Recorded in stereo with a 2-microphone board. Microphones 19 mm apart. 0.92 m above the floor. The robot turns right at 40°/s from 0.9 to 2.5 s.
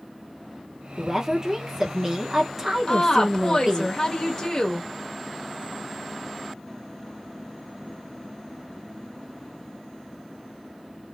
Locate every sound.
1.0 s a woman speaking: 20° right (ahead or behind), 0.7 m
2.9 s a woman speaking: 40° left (ahead or behind), 1.0 m